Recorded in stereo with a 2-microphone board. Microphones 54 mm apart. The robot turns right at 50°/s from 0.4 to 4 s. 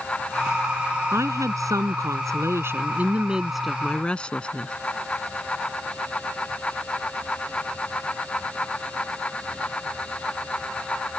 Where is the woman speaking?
125° right; by 4.7 s 20° left.